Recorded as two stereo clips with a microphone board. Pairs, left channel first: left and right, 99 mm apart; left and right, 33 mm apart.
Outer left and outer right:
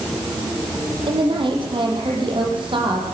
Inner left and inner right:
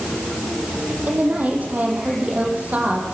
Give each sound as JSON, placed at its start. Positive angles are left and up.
{"t": 1.0, "sound": "a woman speaking", "side_deg": -55, "distance_m": 9.0}